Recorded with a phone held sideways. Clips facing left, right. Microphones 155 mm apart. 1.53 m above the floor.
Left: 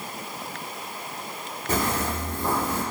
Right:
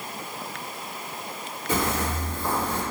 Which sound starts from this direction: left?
Footsteps, at 1.7 s.